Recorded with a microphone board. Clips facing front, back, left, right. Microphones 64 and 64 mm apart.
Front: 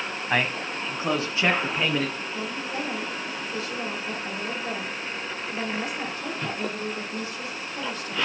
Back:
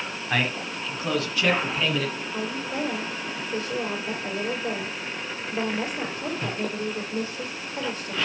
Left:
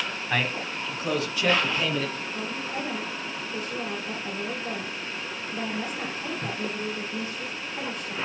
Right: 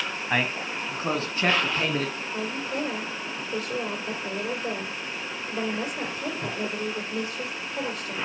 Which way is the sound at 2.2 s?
120° right.